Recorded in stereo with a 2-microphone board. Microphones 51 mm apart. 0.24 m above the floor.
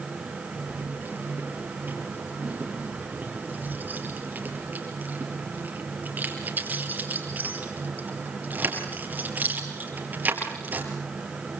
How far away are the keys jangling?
About 4.5 m.